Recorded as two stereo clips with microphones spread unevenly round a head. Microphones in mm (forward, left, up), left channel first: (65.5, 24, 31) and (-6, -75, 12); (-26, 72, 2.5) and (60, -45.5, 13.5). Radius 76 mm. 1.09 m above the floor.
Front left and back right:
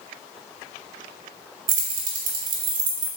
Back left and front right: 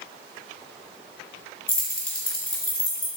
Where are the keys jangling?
150° right, 0.8 m.